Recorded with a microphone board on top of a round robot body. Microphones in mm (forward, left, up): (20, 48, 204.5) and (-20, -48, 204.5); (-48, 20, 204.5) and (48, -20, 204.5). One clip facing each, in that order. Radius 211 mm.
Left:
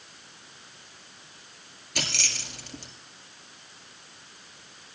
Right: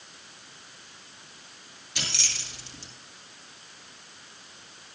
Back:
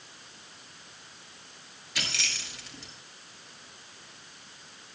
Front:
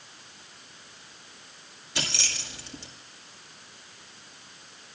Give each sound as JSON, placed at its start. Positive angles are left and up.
{"t": 1.9, "sound": "keys jangling", "azimuth_deg": 30, "distance_m": 2.0}